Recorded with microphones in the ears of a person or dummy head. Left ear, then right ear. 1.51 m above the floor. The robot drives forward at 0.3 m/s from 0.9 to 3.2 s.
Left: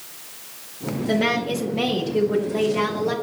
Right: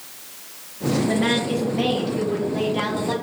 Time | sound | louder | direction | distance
1.1 | a woman speaking | left 3 dB | 65° left (ahead or behind) | 0.7 m